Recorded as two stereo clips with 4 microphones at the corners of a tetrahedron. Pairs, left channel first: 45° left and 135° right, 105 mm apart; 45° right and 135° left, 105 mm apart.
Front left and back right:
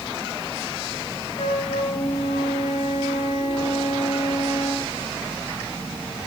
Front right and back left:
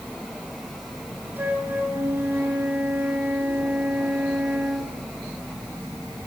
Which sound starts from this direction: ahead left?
A flute, at 1.4 s.